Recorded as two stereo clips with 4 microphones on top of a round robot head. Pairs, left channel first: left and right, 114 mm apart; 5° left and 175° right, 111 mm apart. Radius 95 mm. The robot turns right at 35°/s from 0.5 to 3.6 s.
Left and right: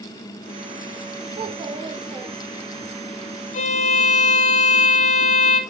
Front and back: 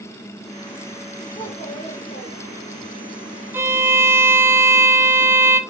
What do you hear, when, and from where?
1.4 s a child speaking: 55° right, 2.0 m; by 2.9 s straight ahead, 2.0 m
3.5 s a violin: 115° left, 1.5 m